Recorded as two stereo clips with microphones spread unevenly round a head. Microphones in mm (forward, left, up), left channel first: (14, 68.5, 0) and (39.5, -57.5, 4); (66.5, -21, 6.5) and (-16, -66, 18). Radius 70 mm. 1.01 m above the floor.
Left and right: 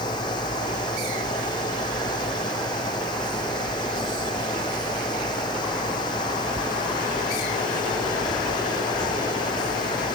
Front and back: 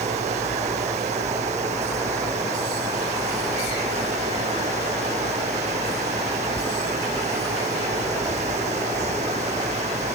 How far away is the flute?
No flute in this recording.